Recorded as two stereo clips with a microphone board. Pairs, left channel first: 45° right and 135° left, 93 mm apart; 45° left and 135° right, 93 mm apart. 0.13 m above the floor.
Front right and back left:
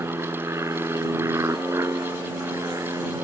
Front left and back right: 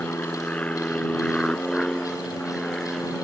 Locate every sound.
0.0 s an aircraft: 105° left; by 3.2 s 135° left